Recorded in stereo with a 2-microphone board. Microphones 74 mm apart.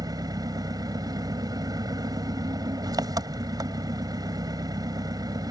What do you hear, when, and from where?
0.0 s an engine running: 60° right (ahead or behind)